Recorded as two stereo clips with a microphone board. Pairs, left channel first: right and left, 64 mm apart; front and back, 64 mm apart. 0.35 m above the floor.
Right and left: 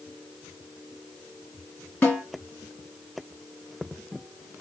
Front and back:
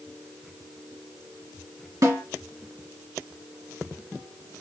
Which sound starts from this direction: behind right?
A snare drum, at 2.0 s.